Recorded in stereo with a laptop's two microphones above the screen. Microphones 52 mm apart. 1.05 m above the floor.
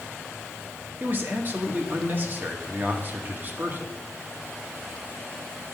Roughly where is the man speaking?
Right.